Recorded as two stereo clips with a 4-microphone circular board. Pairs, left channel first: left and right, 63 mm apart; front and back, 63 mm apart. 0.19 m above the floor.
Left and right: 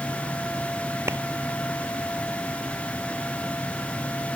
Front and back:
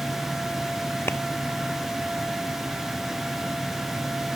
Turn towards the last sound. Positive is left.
turn(degrees=-45)